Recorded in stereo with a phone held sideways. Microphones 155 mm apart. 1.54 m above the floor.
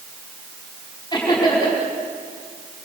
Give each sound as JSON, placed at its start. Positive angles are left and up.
{"t": 1.1, "sound": "laughter", "side_deg": 30, "distance_m": 5.0}